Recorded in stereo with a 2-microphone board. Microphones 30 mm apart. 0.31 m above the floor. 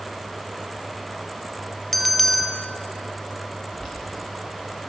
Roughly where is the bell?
Centre.